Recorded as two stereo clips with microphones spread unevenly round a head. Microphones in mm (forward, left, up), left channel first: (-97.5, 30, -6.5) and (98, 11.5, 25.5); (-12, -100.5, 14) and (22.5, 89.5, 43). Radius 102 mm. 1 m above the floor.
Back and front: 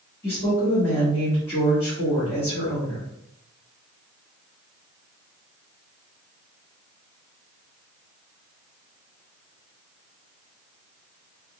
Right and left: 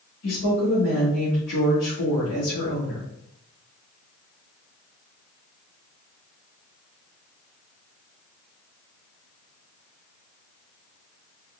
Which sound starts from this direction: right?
A woman speaking, at 0.2 s.